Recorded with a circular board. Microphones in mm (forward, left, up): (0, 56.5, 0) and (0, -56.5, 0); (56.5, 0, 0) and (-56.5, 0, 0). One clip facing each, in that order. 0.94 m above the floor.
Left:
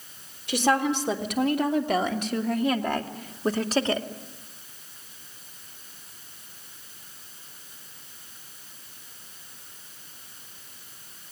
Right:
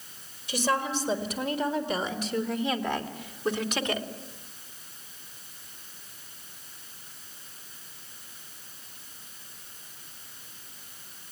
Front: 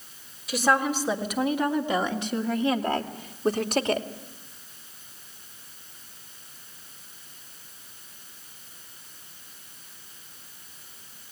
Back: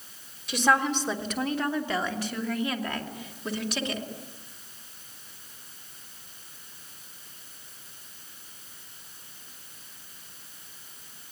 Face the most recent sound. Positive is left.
turn(degrees=35)